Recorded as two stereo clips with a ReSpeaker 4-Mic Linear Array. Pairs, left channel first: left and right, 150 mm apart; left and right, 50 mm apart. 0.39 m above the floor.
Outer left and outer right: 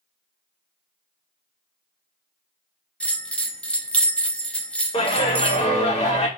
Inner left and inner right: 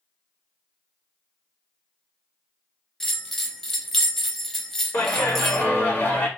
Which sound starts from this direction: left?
A clap, at 4.9 s.